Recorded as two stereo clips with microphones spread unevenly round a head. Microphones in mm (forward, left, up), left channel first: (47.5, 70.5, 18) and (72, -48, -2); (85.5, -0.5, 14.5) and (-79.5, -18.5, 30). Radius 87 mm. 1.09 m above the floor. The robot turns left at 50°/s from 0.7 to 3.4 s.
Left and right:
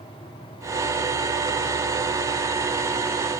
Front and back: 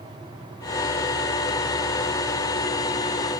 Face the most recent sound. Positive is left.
No sound to turn to.